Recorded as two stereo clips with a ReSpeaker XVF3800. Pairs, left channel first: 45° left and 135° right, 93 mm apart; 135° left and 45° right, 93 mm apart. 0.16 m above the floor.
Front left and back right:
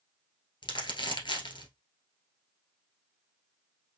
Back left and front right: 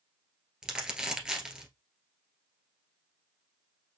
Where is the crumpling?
35° left, 1.6 m.